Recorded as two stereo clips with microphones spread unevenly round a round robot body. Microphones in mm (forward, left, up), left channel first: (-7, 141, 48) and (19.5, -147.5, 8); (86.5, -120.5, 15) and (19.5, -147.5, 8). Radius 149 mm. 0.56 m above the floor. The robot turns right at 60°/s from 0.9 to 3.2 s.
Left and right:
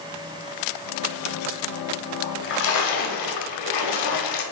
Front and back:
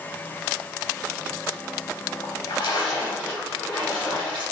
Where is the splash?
25° left, 0.8 m; by 4.4 s 85° left, 0.8 m.